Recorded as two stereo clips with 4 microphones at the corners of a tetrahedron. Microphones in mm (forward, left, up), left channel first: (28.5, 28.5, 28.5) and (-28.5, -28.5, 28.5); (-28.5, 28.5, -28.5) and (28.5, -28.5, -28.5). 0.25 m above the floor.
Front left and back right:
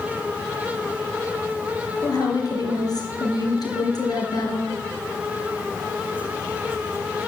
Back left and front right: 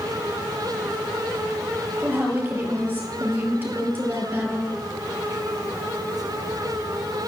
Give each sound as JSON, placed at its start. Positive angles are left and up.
{"t": 2.0, "sound": "a woman speaking", "azimuth_deg": 20, "distance_m": 4.0}